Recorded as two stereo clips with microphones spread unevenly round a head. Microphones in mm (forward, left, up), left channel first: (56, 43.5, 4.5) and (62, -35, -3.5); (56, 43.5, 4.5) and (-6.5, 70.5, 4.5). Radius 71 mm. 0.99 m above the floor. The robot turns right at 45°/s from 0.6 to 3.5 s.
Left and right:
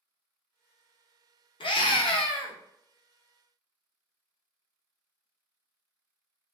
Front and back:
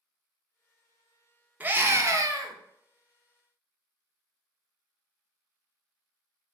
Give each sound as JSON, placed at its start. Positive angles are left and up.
{"t": 1.6, "sound": "a scream", "azimuth_deg": 95, "distance_m": 1.1}